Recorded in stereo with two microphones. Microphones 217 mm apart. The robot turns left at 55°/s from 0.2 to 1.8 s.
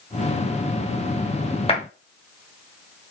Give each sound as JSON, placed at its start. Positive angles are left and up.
{"t": 1.7, "sound": "a clap", "side_deg": 25, "distance_m": 1.3}